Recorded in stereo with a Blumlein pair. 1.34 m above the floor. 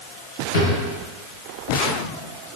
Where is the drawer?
65° left, 3.5 m.